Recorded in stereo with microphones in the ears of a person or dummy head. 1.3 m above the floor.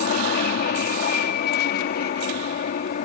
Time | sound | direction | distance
0.0 | an aircraft | 35° left (ahead or behind) | ?